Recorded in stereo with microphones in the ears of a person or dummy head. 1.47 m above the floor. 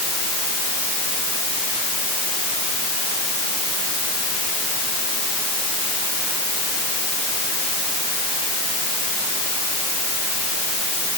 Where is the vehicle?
I don't hear a vehicle.